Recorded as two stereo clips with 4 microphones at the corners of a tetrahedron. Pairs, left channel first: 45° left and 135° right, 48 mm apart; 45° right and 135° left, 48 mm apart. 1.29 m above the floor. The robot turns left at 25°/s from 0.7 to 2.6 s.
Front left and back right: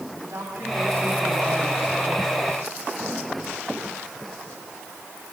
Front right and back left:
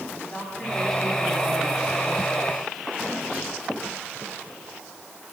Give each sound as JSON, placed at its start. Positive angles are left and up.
{"t": 0.2, "sound": "a woman speaking", "azimuth_deg": -115, "distance_m": 9.5}